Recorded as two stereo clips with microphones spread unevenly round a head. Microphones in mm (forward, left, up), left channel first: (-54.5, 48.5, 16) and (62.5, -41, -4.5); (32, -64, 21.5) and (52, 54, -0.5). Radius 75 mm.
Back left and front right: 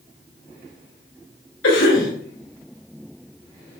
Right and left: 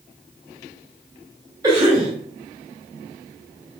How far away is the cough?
About 2.5 m.